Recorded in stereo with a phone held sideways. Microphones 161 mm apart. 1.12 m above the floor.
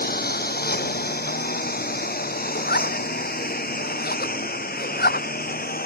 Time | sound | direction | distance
0.0 | a lawn mower | 75° left (ahead or behind) | ?
2.5 | a zipper | 85° left | ?